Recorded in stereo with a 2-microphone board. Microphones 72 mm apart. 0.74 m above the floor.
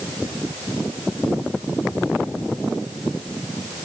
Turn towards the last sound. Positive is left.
No sound to turn to.